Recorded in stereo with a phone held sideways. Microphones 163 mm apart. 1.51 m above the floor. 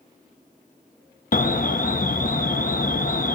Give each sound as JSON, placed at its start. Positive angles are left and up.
{"t": 1.3, "sound": "an alarm", "side_deg": 60, "distance_m": 1.3}